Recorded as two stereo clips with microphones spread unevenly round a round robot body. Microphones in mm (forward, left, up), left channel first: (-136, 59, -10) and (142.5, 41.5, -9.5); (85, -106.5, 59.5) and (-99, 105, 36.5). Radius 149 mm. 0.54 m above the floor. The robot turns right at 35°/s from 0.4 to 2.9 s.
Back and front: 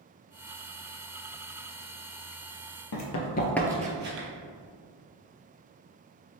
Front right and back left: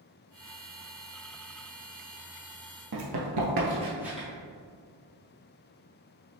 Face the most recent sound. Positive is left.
turn(degrees=35)